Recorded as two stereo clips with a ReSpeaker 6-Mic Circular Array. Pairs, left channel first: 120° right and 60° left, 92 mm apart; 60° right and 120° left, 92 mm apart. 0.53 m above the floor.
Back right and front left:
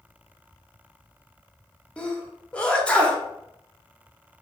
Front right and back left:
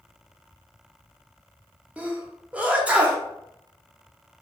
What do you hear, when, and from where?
2.0 s a sneeze: straight behind, 0.7 m